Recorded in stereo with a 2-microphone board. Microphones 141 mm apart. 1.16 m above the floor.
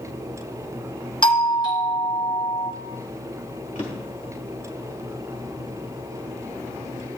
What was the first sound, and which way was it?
A doorbell, 35° left (ahead or behind).